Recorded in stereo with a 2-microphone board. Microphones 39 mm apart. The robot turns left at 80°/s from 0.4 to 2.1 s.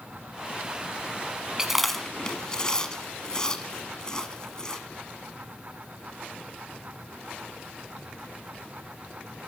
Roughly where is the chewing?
Centre.